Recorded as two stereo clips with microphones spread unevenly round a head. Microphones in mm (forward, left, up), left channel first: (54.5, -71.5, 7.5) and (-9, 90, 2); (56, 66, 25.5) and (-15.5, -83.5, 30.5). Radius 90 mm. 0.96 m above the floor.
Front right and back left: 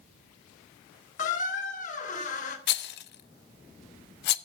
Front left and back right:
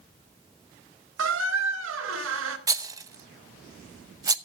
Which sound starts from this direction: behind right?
A squeak, at 1.2 s.